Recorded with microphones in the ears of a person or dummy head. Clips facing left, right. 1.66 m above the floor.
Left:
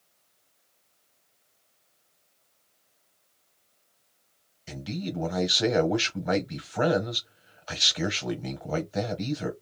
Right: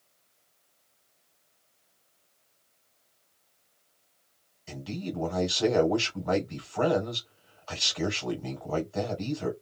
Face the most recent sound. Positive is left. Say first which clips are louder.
# left 1 dB
turn(degrees=25)  # may be behind; listen again after turning